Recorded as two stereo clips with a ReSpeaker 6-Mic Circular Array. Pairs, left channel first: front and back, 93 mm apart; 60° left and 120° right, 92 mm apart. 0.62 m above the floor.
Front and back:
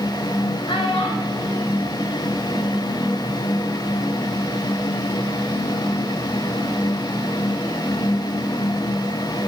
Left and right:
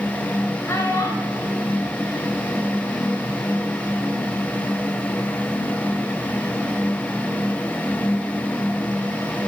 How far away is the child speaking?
About 2.5 m.